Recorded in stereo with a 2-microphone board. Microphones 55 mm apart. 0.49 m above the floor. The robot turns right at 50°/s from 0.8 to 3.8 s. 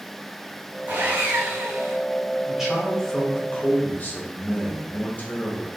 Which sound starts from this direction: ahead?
A man speaking, at 2.5 s.